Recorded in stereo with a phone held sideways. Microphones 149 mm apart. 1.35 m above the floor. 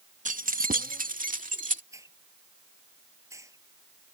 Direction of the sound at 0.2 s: 60° right (ahead or behind).